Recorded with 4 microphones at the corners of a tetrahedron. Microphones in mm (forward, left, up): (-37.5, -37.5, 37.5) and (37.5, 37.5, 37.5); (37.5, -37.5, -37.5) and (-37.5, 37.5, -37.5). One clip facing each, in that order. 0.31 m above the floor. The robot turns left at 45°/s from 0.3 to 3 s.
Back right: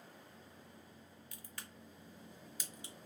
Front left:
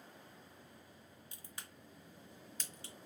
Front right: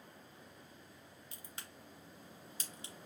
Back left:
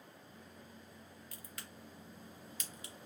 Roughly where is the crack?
Ahead.